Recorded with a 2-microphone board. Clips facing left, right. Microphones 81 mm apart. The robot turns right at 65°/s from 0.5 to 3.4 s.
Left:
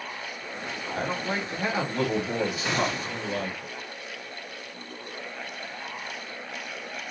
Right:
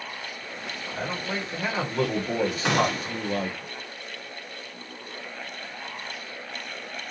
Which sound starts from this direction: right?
A gunshot, at 2.6 s.